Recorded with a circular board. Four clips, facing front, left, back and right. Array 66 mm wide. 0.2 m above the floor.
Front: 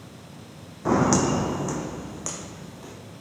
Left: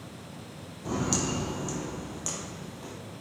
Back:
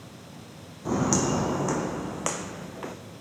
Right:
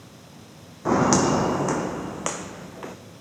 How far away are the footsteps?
About 0.6 m.